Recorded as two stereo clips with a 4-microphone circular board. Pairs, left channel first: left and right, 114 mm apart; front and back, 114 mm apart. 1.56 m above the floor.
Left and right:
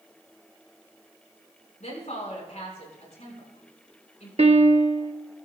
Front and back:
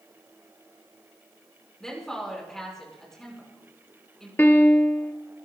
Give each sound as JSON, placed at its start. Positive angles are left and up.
{"t": 1.8, "sound": "a woman speaking", "azimuth_deg": 85, "distance_m": 5.0}
{"t": 4.4, "sound": "a piano", "azimuth_deg": -70, "distance_m": 1.0}